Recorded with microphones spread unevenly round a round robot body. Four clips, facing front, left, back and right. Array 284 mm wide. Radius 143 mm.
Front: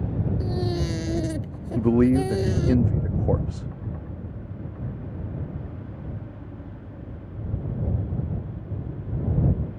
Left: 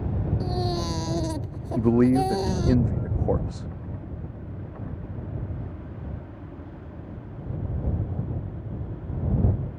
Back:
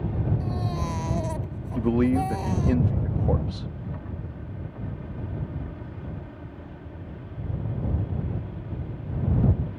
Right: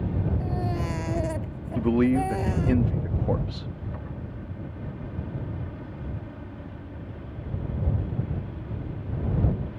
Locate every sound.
0.4 s a baby crying: 25° left
1.8 s a man speaking: 5° left